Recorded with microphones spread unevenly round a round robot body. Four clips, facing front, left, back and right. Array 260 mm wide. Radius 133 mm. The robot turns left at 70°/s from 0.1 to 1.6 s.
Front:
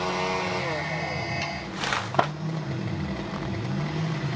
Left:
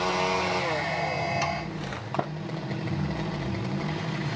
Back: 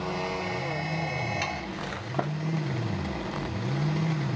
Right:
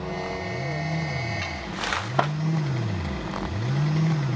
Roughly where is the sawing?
Behind left.